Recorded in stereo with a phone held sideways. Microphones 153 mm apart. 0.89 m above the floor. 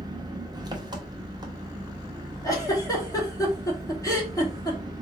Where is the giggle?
20° left (ahead or behind), 2.0 m.